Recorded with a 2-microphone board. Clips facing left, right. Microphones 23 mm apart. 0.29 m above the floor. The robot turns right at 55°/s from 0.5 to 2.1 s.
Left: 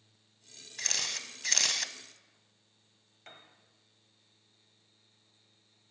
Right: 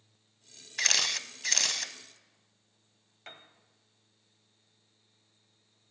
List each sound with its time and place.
0.8 s a camera shutter: 45° right, 0.5 m; by 1.9 s 20° left, 0.5 m
3.3 s a piano: 20° right (ahead or behind), 1.3 m